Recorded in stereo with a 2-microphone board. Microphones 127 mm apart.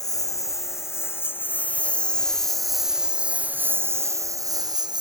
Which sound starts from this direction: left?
A lawn mower, at 0.0 s.